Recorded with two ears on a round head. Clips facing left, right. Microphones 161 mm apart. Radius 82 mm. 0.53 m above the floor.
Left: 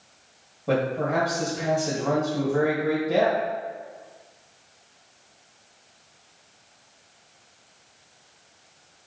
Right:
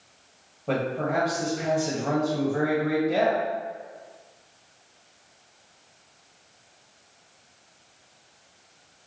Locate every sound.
0.7 s a man speaking: 10° left (ahead or behind), 2.5 m